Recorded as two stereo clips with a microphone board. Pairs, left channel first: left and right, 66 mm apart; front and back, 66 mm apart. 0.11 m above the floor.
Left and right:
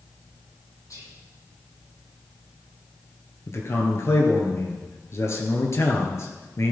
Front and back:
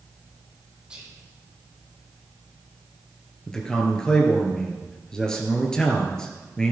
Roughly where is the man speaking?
Left.